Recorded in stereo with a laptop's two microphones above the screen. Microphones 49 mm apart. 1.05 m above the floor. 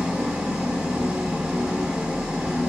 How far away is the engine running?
About 0.8 m.